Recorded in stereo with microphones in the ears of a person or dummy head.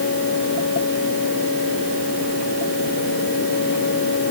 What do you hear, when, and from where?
Only background noise.